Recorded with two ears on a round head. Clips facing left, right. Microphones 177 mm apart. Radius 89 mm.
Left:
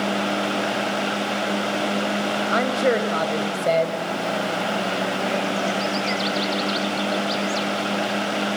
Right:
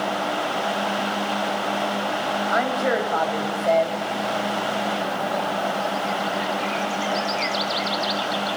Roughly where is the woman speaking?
Left.